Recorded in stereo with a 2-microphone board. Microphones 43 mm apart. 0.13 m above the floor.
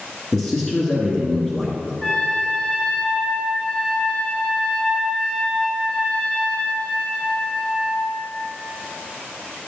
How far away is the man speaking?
About 1.7 m.